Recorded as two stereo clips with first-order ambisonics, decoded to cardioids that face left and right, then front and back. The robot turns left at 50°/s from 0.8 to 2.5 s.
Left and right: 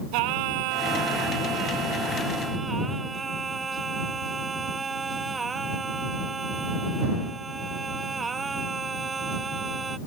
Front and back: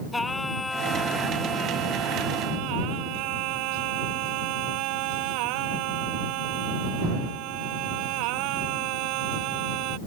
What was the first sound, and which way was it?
Singing, 80° right.